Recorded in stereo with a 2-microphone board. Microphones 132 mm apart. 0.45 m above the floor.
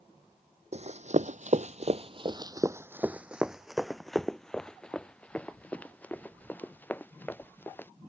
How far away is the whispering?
No whispering in this recording.